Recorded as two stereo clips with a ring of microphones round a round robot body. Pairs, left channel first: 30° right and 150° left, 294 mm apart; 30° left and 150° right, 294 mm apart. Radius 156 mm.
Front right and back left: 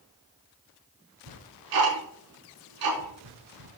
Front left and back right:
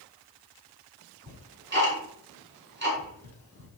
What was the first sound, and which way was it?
Ticking, 155° left.